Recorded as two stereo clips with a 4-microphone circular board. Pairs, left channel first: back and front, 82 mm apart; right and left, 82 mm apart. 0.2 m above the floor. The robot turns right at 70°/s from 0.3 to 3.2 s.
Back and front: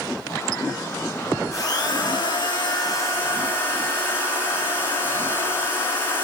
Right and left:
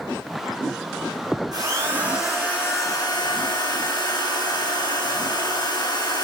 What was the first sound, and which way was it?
A drill, 125° left.